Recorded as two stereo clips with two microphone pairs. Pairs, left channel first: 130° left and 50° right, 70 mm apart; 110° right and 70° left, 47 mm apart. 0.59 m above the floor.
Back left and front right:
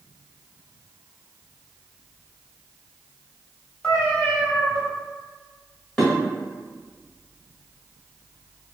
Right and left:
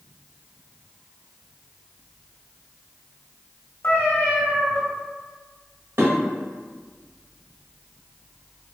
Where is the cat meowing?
155° right, 1.8 m.